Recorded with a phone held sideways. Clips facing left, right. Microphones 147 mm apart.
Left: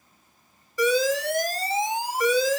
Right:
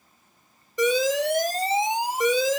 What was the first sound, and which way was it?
An alarm, 20° right (ahead or behind).